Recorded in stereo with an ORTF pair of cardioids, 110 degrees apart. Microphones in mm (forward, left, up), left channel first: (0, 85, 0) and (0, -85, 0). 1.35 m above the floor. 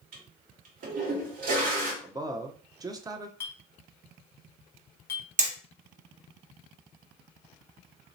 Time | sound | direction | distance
0.1 | a toilet flushing | 60° right | 1.7 m
2.0 | a man speaking | 20° right | 0.7 m
3.4 | a clink | 15° left | 1.1 m
5.4 | hammering | 45° right | 1.5 m